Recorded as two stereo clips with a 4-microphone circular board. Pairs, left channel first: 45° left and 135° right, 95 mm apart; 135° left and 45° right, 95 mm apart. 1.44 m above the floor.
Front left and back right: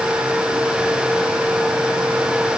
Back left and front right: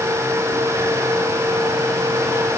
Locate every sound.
Only background noise.